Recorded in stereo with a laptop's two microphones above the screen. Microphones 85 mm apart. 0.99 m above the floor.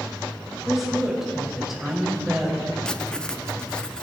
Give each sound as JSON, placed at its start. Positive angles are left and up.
{"t": 0.7, "sound": "a woman speaking", "side_deg": -5, "distance_m": 4.5}
{"t": 2.9, "sound": "writing", "side_deg": 10, "distance_m": 0.5}